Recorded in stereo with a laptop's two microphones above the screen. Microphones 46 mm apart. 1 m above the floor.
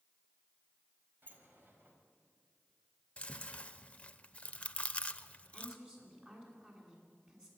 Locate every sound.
1.2 s a sliding door: 50° right (ahead or behind), 4.5 m
3.2 s chewing: 30° left (ahead or behind), 0.8 m
5.5 s a woman speaking: 25° right (ahead or behind), 9 m